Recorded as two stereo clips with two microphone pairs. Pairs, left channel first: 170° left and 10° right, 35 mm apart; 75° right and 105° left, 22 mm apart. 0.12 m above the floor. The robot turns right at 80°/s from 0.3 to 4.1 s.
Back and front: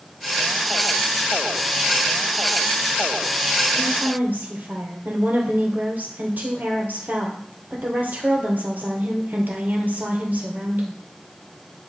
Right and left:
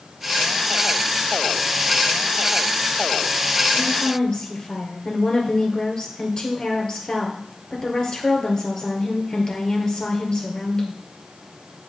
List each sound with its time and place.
3.7 s a woman speaking: 55° right, 2 m; by 11.0 s 30° right, 2 m